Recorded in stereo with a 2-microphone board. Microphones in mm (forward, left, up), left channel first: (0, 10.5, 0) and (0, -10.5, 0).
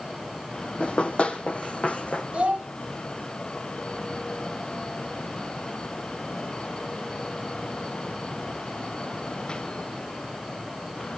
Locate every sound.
0.8 s running footsteps: 60° left (ahead or behind), 2.0 m; by 2.2 s 75° left (ahead or behind), 2.5 m
2.3 s a child speaking: 60° right (ahead or behind), 2.5 m